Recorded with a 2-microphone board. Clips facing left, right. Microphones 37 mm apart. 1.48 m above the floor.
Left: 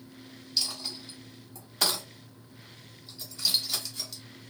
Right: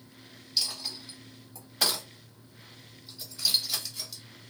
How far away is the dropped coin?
About 1.3 m.